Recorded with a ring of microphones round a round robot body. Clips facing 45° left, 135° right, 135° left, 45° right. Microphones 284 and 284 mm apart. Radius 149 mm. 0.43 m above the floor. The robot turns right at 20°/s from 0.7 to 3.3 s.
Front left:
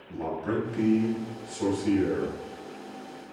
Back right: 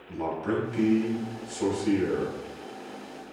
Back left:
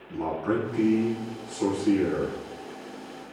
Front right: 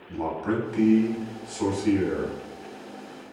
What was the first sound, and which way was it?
A man speaking, 60° right.